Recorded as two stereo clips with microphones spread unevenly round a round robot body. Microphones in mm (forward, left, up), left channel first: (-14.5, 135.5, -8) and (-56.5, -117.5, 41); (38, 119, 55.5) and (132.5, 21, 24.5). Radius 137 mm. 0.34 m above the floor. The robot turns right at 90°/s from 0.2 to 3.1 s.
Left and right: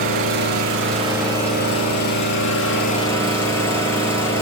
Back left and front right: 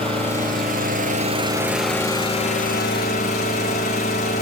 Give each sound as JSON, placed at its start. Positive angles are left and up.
{"t": 0.0, "sound": "an engine running", "azimuth_deg": -100, "distance_m": 4.5}